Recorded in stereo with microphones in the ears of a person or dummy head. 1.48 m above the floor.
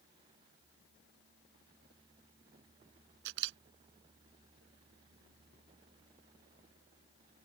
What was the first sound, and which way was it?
A camera shutter, 70° right (ahead or behind).